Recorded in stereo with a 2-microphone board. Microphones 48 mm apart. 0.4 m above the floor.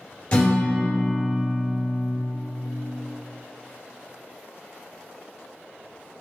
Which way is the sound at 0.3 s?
25° left (ahead or behind).